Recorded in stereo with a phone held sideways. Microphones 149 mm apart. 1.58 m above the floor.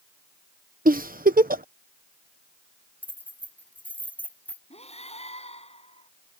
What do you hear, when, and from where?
0.8 s a giggle: 75° right (ahead or behind)
3.0 s keys jangling: 10° left (ahead or behind)
4.7 s breathing: 45° left (ahead or behind)